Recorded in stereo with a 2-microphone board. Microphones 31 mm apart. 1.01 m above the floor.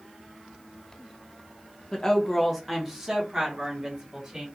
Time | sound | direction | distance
1.9 | a woman speaking | 20° left (ahead or behind) | 0.5 m